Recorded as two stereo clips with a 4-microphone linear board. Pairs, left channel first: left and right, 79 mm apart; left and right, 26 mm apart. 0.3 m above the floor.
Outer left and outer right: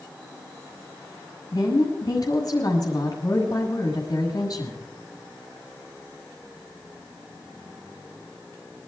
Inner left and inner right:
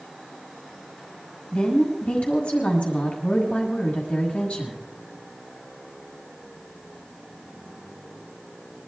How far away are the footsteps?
No footsteps in this recording.